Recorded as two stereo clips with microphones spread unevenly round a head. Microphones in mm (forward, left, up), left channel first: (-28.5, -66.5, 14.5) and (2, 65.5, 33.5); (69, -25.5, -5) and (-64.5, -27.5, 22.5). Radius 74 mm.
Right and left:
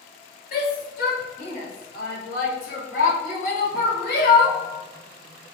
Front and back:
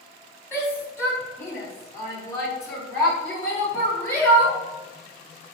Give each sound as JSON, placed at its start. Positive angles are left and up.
{"t": 0.5, "sound": "a shout", "azimuth_deg": -75, "distance_m": 3.0}